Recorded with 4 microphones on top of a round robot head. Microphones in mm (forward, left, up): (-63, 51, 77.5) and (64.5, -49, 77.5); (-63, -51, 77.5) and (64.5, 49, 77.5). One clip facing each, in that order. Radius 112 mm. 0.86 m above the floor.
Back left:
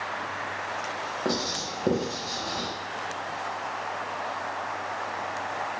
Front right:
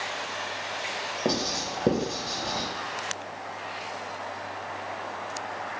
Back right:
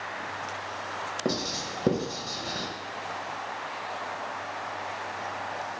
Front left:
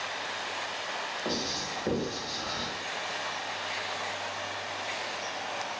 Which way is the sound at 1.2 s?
105° right.